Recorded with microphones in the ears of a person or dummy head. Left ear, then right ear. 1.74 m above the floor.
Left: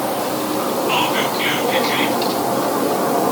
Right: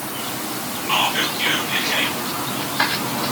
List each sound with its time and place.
0.9 s whispering: 10° left (ahead or behind), 2.5 m